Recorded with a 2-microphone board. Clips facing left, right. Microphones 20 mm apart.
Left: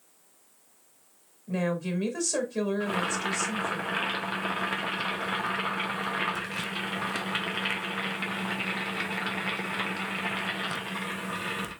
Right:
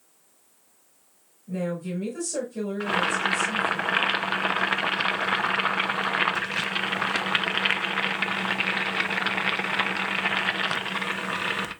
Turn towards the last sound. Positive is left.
turn(degrees=-35)  # may be behind; listen again after turning